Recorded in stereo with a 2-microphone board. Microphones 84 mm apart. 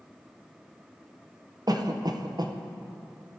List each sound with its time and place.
1.7 s a cough: 55° right (ahead or behind), 0.8 m